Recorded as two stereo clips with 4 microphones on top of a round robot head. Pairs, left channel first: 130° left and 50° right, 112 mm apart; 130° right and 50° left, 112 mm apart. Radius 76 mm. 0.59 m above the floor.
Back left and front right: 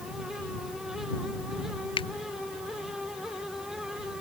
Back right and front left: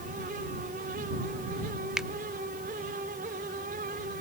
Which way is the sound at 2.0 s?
135° left.